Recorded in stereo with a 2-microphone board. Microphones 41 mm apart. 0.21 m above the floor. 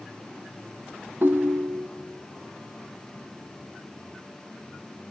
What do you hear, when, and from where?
1.2 s a ringtone: 55° right (ahead or behind), 0.7 m